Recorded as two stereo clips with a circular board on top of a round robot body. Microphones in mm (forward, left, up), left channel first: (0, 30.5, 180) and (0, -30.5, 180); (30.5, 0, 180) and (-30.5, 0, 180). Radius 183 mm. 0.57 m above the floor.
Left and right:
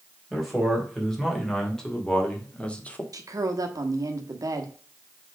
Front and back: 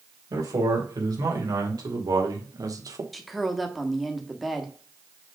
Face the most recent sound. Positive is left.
turn(degrees=-90)